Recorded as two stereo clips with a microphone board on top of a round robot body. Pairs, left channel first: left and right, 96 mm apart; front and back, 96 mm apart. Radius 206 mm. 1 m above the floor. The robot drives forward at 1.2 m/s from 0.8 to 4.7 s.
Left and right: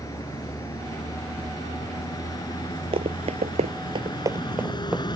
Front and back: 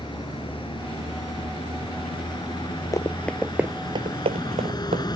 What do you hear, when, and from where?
0.0 s a vehicle: 35° left; by 5.2 s 45° left
2.9 s running footsteps: 60° right; by 5.1 s 170° right